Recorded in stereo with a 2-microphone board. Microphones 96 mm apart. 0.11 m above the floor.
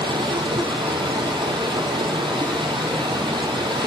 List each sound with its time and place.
0.0 s running water: 60° right (ahead or behind), 0.7 m